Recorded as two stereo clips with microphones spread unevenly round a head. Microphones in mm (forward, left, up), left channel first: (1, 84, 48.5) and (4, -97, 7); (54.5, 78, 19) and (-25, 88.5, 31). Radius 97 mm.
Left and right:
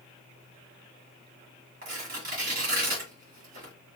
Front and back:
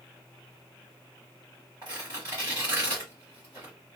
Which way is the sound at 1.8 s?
135° right.